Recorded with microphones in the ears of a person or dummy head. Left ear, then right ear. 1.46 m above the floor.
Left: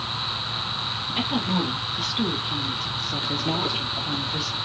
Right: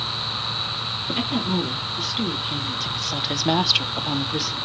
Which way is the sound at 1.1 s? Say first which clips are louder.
Left 1 dB; centre (ahead or behind).